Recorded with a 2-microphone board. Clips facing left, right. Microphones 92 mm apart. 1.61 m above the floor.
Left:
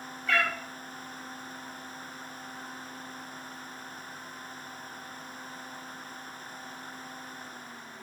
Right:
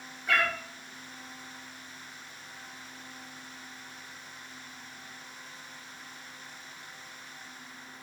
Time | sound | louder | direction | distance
0.3 | a cat meowing | even | 10° right (ahead or behind) | 0.8 m